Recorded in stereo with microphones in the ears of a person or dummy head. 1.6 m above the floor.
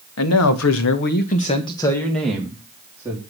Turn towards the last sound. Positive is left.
turn(degrees=-10)  # may be behind; listen again after turning